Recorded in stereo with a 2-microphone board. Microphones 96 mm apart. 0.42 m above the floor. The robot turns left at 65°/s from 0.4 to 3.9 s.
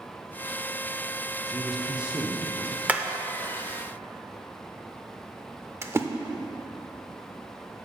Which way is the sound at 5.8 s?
25° right (ahead or behind).